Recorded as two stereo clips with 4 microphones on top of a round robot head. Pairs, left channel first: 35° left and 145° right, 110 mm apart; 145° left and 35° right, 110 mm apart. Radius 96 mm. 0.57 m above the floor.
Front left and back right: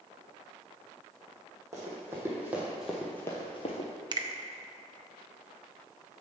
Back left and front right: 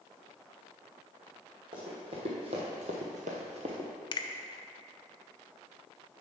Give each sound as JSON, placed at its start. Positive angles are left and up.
{"t": 1.7, "sound": "running footsteps", "azimuth_deg": -80, "distance_m": 2.5}
{"t": 4.1, "sound": "a finger snap", "azimuth_deg": 180, "distance_m": 0.6}